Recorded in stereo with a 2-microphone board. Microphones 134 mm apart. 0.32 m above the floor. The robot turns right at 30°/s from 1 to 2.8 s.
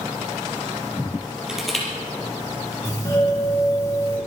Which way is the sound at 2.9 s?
30° left (ahead or behind).